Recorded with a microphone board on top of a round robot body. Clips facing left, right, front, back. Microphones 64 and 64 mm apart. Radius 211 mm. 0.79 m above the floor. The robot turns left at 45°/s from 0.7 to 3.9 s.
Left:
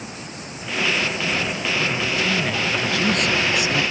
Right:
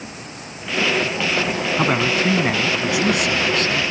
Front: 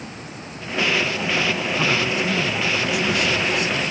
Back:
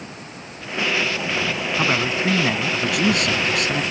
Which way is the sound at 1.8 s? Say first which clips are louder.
Right 6 dB, back 2 dB; 110° right.